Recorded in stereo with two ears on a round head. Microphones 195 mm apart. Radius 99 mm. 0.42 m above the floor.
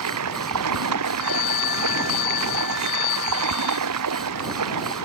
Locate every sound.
0.0 s running water: 90° right
1.2 s a phone ringing: 40° left (ahead or behind)